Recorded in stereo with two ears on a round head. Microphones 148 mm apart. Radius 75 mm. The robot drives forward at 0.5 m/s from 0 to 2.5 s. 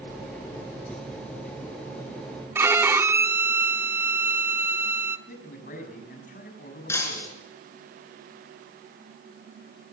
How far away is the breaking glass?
About 4 m.